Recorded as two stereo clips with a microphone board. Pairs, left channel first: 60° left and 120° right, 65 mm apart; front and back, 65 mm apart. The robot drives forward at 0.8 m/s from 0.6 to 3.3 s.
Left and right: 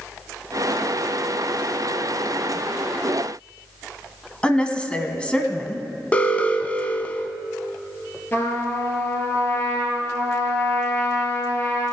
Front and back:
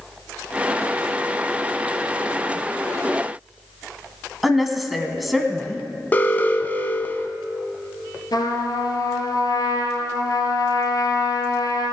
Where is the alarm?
20° left, 0.8 m.